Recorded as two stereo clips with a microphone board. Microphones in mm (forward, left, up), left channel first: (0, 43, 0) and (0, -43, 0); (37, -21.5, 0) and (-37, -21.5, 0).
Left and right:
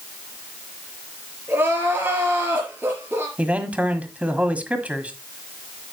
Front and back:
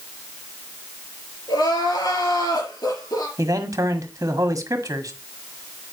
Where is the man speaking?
160° right, 1.6 m.